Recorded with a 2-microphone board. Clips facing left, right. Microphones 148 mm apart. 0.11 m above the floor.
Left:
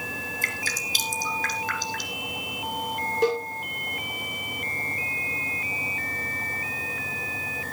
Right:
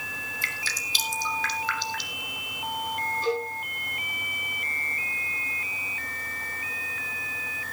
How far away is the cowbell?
About 6.5 m.